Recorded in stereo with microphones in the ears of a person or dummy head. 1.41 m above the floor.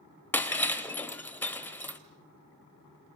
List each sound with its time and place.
0.3 s breaking glass: 10° left (ahead or behind), 2.5 m